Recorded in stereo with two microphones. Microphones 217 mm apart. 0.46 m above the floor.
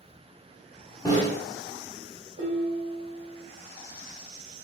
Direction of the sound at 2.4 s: 50° right (ahead or behind).